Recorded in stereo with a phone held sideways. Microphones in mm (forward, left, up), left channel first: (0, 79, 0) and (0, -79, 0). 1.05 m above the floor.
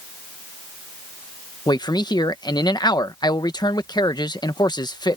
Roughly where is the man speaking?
Left.